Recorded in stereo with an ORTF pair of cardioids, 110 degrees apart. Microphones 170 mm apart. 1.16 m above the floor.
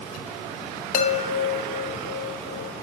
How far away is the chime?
About 0.8 m.